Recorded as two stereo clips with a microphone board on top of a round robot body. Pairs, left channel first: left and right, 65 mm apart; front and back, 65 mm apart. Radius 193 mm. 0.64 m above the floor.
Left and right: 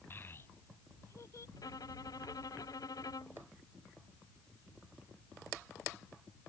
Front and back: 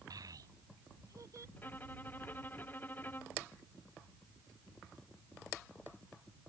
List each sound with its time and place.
0.1 s a child speaking: 150° left; by 1.5 s 135° left
1.6 s a violin: 65° left